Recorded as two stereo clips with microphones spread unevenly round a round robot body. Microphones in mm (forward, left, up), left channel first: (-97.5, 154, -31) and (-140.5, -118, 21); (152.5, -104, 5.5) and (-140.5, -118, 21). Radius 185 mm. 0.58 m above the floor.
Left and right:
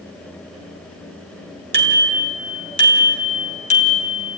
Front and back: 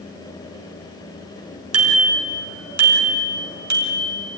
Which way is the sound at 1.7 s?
145° right.